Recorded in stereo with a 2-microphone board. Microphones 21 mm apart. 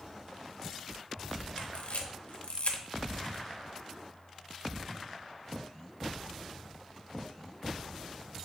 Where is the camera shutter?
70° left (ahead or behind), 0.6 m.